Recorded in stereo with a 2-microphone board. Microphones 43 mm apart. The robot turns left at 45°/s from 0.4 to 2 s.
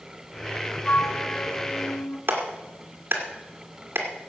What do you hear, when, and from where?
0.8 s a flute: 145° left, 1.3 m; by 2.2 s 90° left, 1.3 m
2.3 s a clap: 65° right (ahead or behind), 2 m